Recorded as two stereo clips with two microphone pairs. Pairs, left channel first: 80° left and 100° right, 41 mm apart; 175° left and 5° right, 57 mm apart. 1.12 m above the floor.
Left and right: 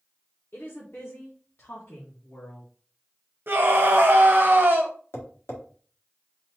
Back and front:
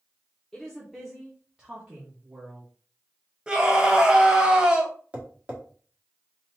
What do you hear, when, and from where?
0.5 s a woman speaking: 100° left, 1.2 m; by 2.7 s 50° left, 1.8 m
3.5 s a scream: 80° right, 1.4 m
5.1 s tapping: 65° left, 1.6 m